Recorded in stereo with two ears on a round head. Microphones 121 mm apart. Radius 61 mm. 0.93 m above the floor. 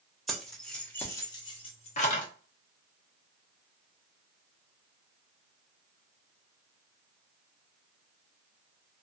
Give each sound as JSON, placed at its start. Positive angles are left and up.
{"t": 0.3, "sound": "keys jangling", "side_deg": 0, "distance_m": 1.2}